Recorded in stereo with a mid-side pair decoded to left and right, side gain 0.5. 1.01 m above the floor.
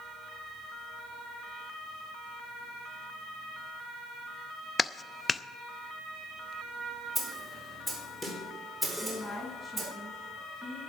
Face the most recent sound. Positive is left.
turn(degrees=5)